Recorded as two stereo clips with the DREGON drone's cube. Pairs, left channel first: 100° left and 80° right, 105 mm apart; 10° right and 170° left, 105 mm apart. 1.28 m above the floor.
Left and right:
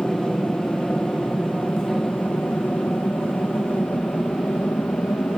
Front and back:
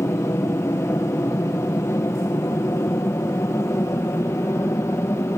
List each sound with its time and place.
0.0 s an aircraft: 25° left; by 5.4 s 40° left